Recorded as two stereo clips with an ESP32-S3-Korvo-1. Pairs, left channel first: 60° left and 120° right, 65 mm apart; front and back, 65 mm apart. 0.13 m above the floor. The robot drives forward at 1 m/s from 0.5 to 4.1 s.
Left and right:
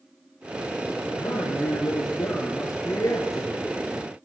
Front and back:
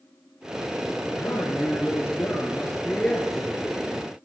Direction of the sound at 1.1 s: 35° left.